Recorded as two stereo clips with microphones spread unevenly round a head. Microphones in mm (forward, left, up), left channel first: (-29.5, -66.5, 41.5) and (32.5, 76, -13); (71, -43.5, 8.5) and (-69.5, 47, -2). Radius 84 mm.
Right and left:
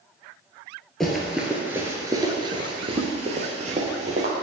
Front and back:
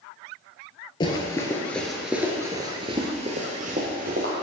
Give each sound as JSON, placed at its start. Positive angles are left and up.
{"t": 1.0, "sound": "running footsteps", "azimuth_deg": -60, "distance_m": 1.6}